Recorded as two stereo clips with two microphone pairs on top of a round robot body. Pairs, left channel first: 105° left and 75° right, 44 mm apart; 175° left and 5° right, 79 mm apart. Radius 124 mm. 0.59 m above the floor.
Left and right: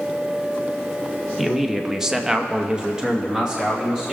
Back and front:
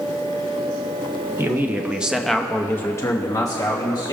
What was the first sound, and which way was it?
A man speaking, 25° left.